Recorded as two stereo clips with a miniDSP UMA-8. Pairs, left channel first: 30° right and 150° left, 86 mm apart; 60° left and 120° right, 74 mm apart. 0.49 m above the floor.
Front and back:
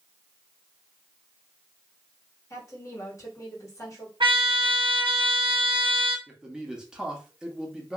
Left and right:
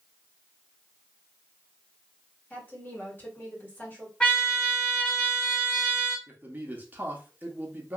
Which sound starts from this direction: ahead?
A woman speaking, at 2.5 s.